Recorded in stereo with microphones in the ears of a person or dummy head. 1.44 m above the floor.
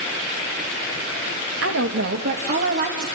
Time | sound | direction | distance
1.6 | a woman speaking | 80° right | 2.5 m